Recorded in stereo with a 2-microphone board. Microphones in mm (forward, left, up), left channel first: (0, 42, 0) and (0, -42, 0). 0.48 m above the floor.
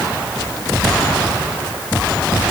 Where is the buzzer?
I don't hear a buzzer.